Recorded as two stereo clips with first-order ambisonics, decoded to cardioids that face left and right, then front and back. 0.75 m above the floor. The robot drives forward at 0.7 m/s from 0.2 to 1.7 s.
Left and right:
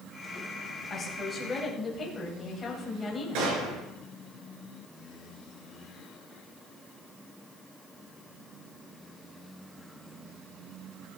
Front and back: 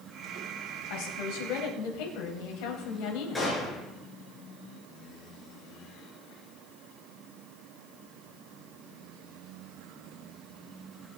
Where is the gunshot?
80° right, 4.5 m.